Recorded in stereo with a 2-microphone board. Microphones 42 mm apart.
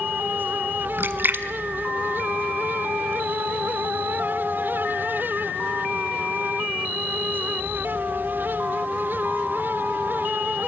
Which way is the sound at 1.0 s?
50° right (ahead or behind).